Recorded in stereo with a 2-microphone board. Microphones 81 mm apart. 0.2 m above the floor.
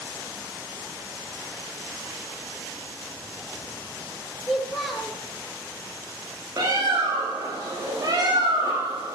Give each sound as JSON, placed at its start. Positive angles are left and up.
{"t": 4.4, "sound": "a child speaking", "side_deg": 0, "distance_m": 3.0}
{"t": 6.6, "sound": "a bird", "side_deg": -45, "distance_m": 5.5}